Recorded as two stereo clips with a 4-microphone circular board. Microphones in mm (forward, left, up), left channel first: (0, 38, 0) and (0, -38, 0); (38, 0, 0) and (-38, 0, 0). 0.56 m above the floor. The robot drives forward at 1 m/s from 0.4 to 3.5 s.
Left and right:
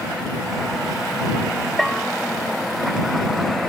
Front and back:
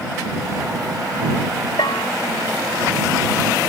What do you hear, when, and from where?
1.8 s a bell: 5° left